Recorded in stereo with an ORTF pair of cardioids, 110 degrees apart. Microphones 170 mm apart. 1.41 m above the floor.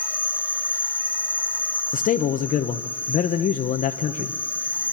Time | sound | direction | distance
0.0 | an insect | 10° left | 0.7 m
1.9 | a man speaking | 50° left | 1.0 m